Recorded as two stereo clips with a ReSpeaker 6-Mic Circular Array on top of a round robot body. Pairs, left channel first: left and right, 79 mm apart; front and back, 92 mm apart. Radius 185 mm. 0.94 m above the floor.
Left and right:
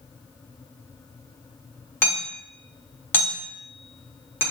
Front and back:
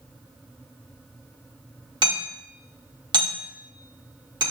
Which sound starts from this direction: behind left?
Hammering, at 2.0 s.